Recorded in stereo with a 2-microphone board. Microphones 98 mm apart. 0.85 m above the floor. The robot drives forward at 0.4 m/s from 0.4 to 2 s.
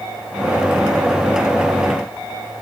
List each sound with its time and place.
Only background noise.